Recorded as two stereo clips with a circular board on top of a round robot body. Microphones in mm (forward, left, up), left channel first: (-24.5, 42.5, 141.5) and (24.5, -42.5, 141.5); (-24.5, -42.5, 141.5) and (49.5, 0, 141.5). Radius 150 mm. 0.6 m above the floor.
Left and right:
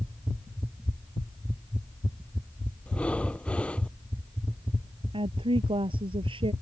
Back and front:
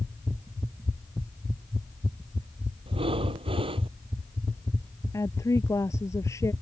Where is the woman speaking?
95° right.